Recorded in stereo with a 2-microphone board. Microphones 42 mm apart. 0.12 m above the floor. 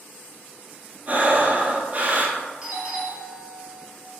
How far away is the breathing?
About 0.7 m.